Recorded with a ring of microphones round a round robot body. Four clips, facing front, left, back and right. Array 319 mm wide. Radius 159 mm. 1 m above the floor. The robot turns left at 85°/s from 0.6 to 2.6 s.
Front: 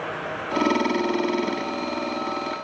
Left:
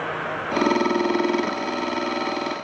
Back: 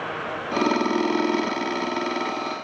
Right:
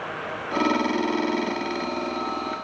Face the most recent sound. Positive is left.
No sound to turn to.